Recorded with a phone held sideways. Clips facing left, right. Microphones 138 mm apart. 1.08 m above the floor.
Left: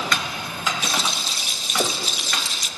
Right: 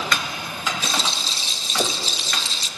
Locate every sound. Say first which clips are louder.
0.8 s a rattle: even; 30° right (ahead or behind), 1.0 m